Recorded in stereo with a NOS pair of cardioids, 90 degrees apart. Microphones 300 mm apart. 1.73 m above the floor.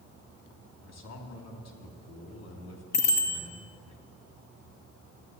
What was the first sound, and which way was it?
A man speaking, 60° left.